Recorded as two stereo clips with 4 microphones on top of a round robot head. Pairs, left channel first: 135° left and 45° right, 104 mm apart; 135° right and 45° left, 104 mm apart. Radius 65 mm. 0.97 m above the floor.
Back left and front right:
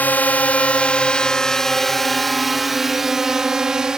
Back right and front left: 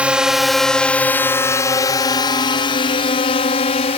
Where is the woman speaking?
I don't hear a woman speaking.